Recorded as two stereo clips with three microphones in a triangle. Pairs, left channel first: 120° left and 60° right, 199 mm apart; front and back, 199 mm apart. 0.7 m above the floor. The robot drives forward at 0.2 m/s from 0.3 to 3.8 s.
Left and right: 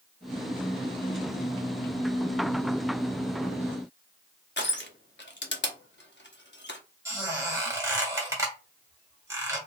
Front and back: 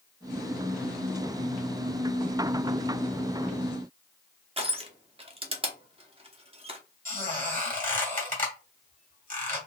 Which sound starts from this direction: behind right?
A squeak, at 7.0 s.